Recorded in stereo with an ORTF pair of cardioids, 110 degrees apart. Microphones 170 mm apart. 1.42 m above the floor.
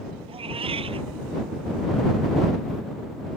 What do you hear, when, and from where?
0.3 s a cat meowing: 35° right